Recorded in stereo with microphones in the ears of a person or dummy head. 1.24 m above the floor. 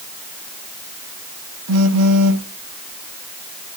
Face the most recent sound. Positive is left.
turn(degrees=-85)